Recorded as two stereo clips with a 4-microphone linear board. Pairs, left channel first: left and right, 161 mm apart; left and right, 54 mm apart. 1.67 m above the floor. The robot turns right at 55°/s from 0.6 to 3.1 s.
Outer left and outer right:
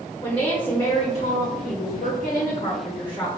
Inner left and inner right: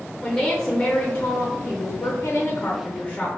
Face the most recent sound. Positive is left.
turn(degrees=170)